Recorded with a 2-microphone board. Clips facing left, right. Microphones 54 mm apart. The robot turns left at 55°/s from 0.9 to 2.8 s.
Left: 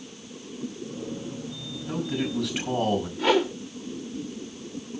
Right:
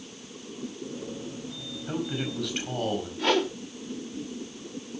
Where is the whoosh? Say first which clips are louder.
Left 2 dB; 5° left (ahead or behind), 0.8 m.